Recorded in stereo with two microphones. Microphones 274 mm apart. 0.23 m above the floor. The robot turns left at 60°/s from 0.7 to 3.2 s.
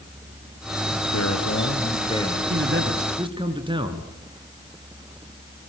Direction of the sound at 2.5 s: 120° right.